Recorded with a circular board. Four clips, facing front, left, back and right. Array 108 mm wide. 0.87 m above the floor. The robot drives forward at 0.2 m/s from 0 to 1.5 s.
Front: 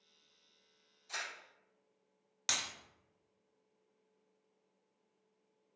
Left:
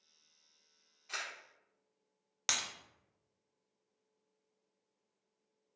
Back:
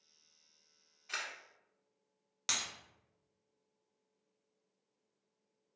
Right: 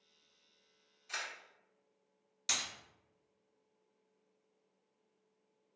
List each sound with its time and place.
1.1 s a camera shutter: 160° left, 1.2 m
2.5 s breaking glass: 95° left, 0.8 m